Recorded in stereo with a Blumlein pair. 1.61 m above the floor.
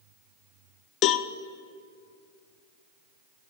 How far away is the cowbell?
About 0.6 m.